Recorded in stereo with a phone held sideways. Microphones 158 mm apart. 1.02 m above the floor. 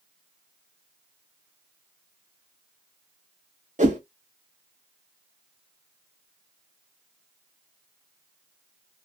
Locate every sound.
3.8 s a whoosh: 55° right (ahead or behind), 0.8 m